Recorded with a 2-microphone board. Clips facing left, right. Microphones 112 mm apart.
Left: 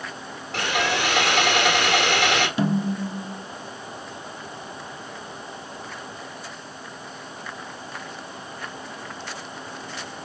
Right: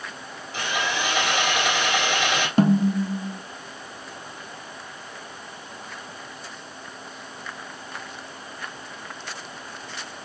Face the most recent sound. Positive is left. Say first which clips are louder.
# right 4 dB
turn(degrees=-45)  # may be behind; listen again after turning